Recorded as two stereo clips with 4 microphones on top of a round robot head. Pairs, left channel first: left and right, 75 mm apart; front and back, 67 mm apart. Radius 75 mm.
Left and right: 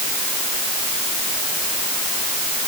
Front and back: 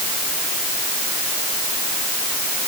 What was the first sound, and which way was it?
Only background noise.